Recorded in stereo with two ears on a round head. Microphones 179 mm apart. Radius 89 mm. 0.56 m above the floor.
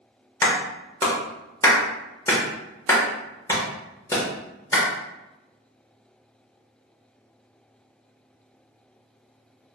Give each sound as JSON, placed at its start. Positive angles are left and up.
{"t": 0.4, "sound": "a clap", "side_deg": 15, "distance_m": 1.2}